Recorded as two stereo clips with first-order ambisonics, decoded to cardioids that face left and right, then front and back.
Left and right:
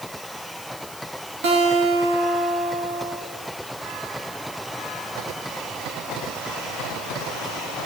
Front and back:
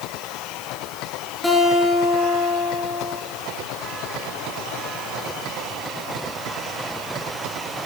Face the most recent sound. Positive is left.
turn(degrees=-90)